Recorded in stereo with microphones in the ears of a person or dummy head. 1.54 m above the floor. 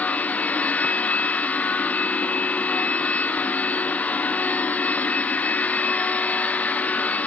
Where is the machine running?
5° left (ahead or behind), 0.7 m.